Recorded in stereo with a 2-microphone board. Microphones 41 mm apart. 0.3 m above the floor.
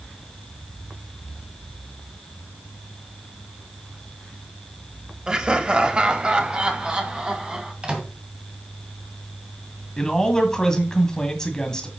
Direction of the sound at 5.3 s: 20° right (ahead or behind).